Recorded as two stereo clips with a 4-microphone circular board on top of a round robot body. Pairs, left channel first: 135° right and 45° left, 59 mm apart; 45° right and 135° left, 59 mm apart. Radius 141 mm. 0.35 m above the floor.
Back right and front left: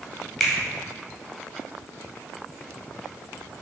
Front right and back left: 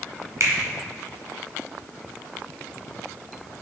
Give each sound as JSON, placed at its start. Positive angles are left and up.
{"t": 0.4, "sound": "a finger snap", "azimuth_deg": 130, "distance_m": 1.7}